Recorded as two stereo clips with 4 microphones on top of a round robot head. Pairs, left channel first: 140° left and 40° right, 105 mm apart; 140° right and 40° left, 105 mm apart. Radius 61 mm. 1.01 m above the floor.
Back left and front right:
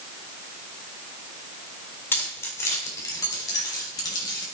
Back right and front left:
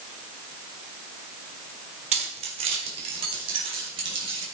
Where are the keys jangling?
70° left, 2 m; by 4.5 s 85° left, 3.5 m.